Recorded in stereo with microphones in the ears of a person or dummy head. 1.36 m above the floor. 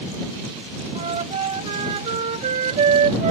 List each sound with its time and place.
0.9 s a flute: 30° right (ahead or behind)